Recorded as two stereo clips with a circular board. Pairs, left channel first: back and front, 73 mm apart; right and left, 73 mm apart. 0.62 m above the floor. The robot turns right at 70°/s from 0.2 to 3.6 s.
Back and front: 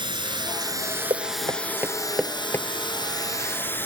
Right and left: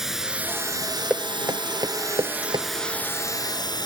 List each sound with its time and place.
0.0 s running water: 5° left; by 3.9 s 115° right
1.1 s knocking: 15° left; by 2.7 s 125° left